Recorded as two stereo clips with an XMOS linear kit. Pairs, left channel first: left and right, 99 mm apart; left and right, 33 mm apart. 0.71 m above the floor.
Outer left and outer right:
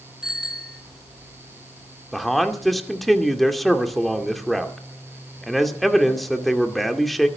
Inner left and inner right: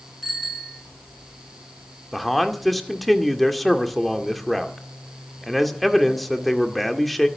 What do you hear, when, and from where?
0.2 s a bicycle bell: 5° right (ahead or behind), 6.5 m
2.1 s a man speaking: centre (ahead or behind), 2 m